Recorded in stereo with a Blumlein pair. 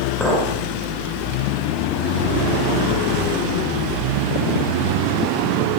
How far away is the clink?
About 3.5 m.